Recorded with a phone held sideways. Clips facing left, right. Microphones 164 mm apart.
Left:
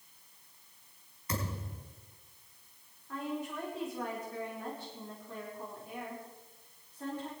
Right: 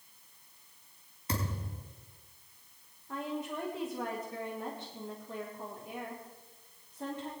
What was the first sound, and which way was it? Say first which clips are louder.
A thud: right 1 dB; 30° right (ahead or behind).